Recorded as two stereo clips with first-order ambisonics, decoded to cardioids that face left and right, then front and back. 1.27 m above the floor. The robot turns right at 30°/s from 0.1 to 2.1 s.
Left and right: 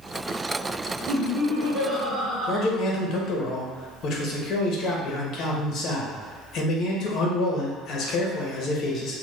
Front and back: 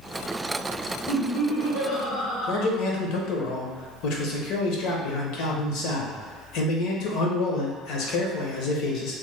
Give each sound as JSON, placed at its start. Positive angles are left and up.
{"t": 1.1, "sound": "laughter", "azimuth_deg": -35, "distance_m": 1.0}
{"t": 2.5, "sound": "a man speaking", "azimuth_deg": 35, "distance_m": 0.7}